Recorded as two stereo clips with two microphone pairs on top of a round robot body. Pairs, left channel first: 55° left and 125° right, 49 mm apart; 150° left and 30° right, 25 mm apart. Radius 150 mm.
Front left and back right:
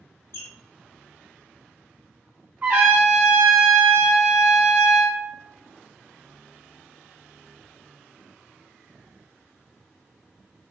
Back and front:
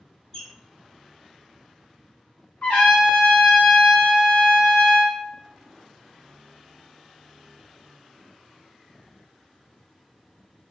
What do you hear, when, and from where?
0.3 s a squeak: 75° left, 1.2 m
2.6 s a trumpet: 175° left, 0.6 m